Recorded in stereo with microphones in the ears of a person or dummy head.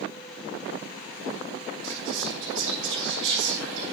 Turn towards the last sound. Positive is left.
turn(degrees=-65)  # may be behind; listen again after turning